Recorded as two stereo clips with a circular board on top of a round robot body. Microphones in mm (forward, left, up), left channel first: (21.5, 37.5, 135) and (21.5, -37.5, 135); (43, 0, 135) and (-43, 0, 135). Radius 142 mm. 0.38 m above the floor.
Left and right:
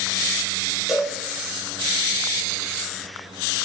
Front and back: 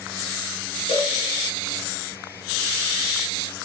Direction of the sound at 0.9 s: 5° right.